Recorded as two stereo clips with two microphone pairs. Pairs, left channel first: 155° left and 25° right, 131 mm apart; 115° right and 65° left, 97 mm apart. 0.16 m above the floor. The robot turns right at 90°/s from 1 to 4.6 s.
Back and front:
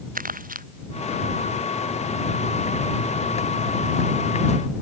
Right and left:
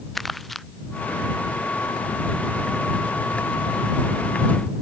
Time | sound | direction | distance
0.1 | crumpling | 25° right | ?